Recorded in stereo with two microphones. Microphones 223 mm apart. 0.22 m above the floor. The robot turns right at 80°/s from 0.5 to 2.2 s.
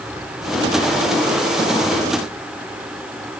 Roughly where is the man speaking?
I don't hear a man speaking.